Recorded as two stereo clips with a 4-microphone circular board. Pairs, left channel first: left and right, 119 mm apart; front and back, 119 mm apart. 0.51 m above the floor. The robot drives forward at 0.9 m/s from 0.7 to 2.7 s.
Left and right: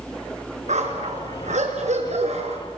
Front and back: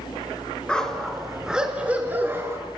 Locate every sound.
0.7 s a dog barking: 85° right, 3.5 m; by 2.6 s 110° right, 3.5 m